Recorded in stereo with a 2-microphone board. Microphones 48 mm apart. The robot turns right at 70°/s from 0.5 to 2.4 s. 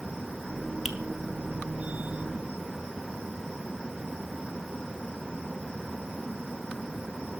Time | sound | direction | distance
0.8 | a finger snap | 5° right (ahead or behind) | 0.9 m